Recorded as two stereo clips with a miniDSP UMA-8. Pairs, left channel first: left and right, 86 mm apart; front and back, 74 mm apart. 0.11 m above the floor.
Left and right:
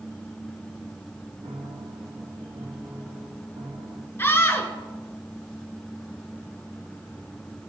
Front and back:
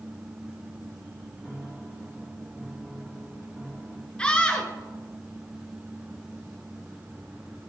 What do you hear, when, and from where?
1.4 s a piano: 95° right, 3 m
4.2 s a scream: 60° left, 1.8 m